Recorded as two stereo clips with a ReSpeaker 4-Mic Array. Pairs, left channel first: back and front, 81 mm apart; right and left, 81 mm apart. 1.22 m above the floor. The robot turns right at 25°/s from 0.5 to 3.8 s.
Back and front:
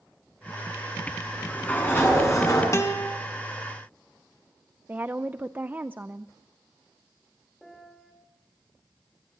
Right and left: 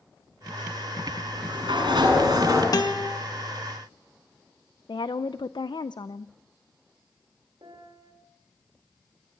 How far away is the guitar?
About 2 m.